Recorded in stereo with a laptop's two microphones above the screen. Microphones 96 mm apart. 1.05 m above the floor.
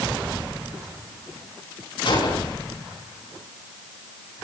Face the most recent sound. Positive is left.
turn(degrees=60)  # may be behind; listen again after turning